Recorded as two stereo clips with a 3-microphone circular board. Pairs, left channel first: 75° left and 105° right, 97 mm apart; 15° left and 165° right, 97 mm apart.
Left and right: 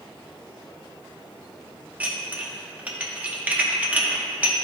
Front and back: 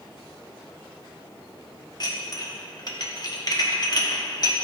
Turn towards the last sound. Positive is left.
turn(degrees=-30)